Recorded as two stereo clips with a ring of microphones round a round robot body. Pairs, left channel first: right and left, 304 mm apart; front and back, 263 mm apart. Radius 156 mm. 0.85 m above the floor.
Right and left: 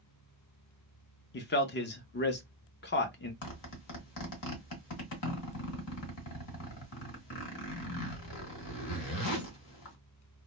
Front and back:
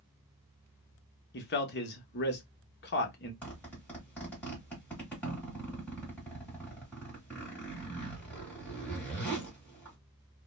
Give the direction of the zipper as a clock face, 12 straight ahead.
3 o'clock.